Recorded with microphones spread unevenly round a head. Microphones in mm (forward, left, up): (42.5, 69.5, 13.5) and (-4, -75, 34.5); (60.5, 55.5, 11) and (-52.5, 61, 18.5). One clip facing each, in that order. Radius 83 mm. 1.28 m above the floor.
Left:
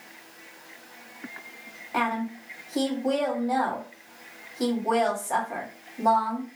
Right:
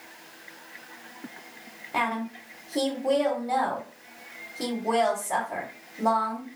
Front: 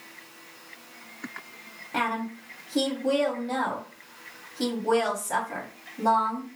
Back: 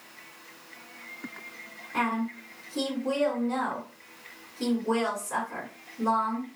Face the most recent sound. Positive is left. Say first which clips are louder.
# left 1 dB, even
turn(degrees=-30)